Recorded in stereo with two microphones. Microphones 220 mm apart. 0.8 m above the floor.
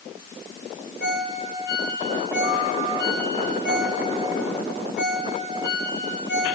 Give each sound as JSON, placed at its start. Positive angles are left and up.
{"t": 1.0, "sound": "a ringtone", "side_deg": 55, "distance_m": 5.0}